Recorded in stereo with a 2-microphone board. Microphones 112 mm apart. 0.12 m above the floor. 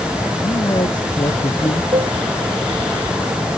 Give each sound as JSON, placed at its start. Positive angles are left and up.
{"t": 0.4, "sound": "a man speaking", "side_deg": 45}
{"t": 1.9, "sound": "a cowbell", "side_deg": -60}